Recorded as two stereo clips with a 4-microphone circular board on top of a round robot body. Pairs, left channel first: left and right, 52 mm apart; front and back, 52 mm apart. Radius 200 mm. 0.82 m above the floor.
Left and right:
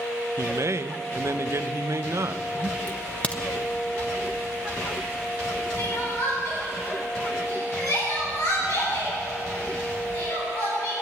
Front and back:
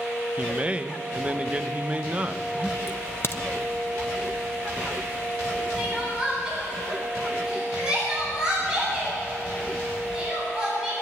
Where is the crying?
105° left, 9 m.